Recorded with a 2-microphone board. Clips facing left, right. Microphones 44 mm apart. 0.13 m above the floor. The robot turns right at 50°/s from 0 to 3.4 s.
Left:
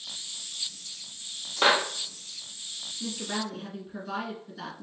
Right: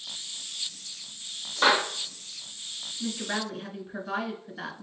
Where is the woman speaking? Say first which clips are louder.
Right 2 dB; 35° right (ahead or behind), 1.2 m.